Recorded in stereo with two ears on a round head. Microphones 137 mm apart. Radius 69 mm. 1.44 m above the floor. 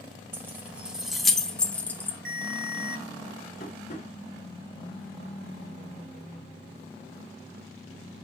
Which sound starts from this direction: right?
A ringtone, at 2.2 s.